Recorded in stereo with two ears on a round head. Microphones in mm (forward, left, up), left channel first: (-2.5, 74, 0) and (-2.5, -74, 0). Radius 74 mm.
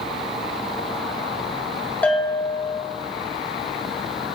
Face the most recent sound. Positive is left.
turn(degrees=10)  # may be behind; listen again after turning